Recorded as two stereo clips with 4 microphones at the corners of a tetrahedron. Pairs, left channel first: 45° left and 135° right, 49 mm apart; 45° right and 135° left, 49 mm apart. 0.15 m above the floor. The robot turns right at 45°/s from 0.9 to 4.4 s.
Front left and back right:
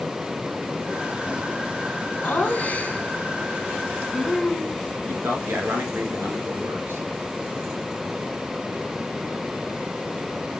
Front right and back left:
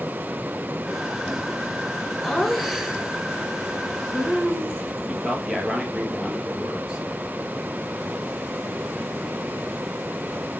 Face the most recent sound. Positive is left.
turn(degrees=-150)